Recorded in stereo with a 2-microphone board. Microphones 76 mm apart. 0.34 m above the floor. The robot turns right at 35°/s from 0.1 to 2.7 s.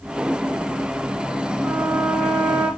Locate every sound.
1.6 s a trumpet: 5° right, 5.5 m; by 2.7 s 30° left, 5.5 m